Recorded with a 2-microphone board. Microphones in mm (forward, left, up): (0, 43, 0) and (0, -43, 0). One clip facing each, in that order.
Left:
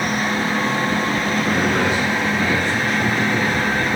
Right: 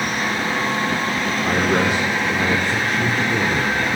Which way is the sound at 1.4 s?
60° right (ahead or behind).